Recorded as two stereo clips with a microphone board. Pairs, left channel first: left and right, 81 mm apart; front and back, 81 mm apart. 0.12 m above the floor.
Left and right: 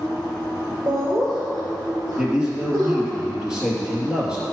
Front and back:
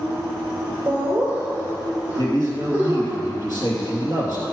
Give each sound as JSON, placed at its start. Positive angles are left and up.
{"t": 0.9, "sound": "laughter", "azimuth_deg": -110, "distance_m": 2.5}
{"t": 2.2, "sound": "a man speaking", "azimuth_deg": -10, "distance_m": 2.5}